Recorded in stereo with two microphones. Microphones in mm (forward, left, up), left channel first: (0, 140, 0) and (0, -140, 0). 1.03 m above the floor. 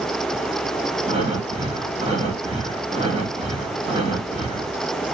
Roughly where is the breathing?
Centre.